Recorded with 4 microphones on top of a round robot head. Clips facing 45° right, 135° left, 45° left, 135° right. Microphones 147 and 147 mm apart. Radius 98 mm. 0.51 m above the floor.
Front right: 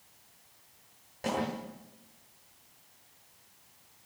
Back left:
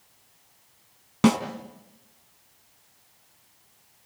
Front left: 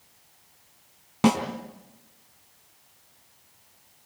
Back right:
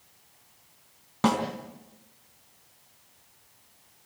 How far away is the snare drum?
About 4 m.